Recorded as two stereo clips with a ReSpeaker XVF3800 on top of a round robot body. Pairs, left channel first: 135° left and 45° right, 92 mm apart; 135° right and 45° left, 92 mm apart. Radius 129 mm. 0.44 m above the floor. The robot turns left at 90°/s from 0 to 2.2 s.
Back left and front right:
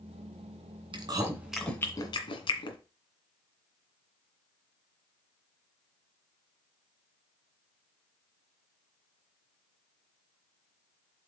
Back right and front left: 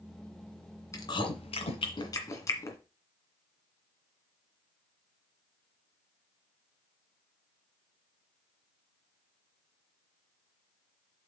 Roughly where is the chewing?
Right.